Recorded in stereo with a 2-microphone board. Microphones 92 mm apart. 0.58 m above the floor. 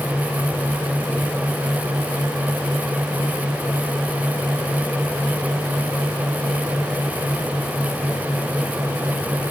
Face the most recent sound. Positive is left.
No sound to turn to.